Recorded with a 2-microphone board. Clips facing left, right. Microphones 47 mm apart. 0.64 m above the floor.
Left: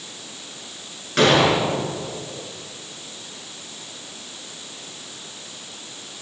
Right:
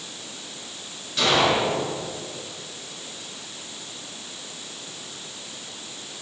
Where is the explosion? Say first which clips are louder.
Left 4 dB; 60° left (ahead or behind), 4 m.